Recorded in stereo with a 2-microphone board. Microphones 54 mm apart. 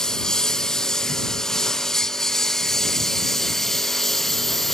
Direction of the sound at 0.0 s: 10° left (ahead or behind).